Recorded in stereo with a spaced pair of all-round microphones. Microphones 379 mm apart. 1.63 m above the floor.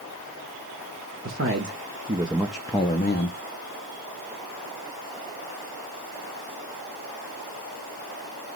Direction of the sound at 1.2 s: 40° right (ahead or behind).